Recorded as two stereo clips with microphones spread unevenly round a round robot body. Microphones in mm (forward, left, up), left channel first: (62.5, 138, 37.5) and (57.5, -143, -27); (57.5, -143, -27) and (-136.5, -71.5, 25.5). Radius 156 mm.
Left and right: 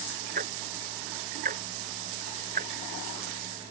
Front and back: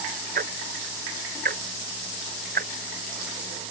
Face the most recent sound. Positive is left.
turn(degrees=-160)